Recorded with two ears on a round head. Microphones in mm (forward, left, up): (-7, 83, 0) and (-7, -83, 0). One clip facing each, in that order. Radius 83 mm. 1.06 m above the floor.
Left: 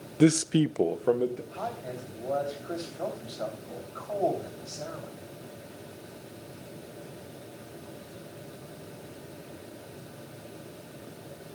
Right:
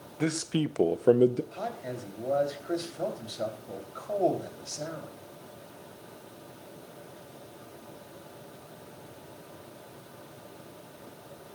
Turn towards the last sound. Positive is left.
turn(degrees=-20)  # may be behind; listen again after turning